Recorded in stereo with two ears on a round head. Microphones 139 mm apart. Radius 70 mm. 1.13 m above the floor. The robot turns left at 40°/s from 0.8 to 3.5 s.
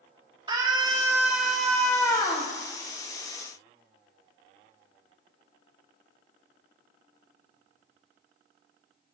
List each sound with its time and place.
0.5 s a scream: 150° right, 1.9 m; by 2.5 s 140° left, 1.9 m